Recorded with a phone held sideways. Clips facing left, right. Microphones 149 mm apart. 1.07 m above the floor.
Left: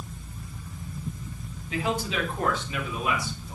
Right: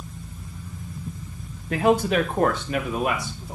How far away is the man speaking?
About 1.4 m.